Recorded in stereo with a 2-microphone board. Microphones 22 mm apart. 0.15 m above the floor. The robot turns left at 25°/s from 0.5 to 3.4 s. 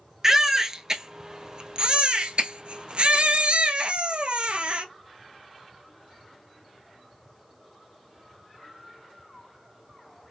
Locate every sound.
0.2 s a baby crying: 20° right, 0.7 m; by 4.8 s 95° right, 0.7 m